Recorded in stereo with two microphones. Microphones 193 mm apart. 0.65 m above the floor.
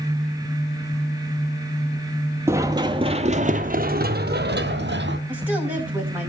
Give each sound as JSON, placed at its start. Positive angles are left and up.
{"t": 2.5, "sound": "running footsteps", "side_deg": -15, "distance_m": 1.2}
{"t": 5.3, "sound": "a woman speaking", "side_deg": -10, "distance_m": 5.0}